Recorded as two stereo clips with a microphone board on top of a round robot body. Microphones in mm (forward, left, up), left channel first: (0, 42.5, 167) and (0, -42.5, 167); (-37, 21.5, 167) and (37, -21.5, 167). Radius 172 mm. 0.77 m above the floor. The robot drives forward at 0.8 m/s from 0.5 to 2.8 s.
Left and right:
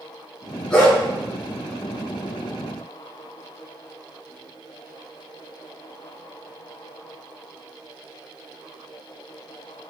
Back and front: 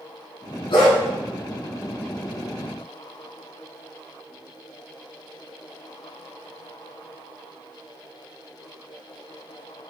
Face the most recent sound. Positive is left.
turn(degrees=170)